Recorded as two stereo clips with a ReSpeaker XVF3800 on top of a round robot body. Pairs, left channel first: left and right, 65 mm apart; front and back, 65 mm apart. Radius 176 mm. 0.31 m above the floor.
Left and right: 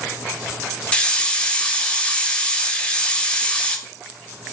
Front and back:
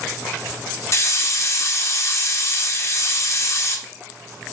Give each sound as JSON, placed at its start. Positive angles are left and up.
{"t": 0.9, "sound": "a hiss", "azimuth_deg": 20, "distance_m": 1.3}